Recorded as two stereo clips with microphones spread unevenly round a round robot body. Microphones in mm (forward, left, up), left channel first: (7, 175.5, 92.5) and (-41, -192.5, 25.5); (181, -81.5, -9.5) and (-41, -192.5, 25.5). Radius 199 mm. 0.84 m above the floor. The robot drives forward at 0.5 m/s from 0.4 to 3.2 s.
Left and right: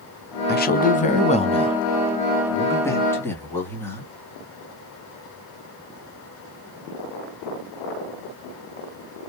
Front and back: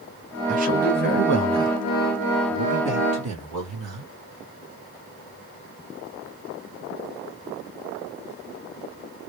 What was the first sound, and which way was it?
A man speaking, 145° left.